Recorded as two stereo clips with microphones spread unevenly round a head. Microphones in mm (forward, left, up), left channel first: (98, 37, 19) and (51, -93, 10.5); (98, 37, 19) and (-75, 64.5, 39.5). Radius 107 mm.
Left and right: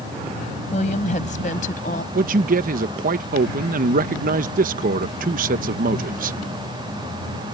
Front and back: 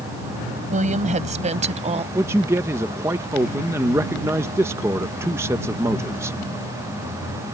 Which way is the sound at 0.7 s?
130° left.